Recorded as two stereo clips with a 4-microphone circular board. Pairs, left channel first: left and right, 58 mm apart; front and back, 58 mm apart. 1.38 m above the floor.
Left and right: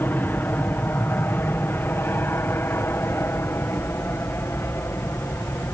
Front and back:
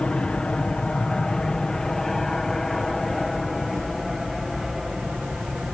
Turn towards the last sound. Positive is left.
turn(degrees=100)